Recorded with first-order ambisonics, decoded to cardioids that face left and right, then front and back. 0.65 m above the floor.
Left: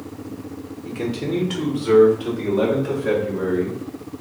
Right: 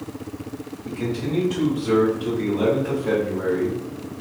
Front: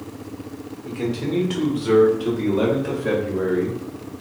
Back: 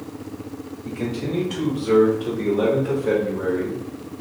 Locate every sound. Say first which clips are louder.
0.8 s a man speaking: left 2 dB, front 2 dB; 60° left, 1.5 m; by 3.8 s 25° left, 2.5 m